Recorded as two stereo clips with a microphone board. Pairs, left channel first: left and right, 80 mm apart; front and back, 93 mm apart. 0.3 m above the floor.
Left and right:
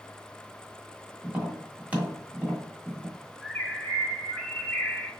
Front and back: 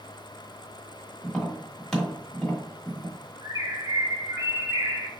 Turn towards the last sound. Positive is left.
turn(degrees=165)